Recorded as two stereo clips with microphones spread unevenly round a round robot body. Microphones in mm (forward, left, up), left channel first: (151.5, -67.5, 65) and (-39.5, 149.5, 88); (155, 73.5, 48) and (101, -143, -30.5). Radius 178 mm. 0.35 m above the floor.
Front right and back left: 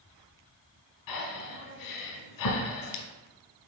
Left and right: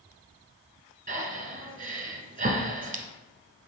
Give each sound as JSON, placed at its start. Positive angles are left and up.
{"t": 1.1, "sound": "breathing", "azimuth_deg": -45, "distance_m": 1.3}